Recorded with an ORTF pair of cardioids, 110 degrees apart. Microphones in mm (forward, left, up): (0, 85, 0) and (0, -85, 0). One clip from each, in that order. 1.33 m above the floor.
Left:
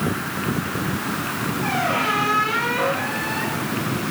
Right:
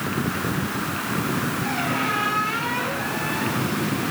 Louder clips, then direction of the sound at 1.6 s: Left 6 dB; 50° left.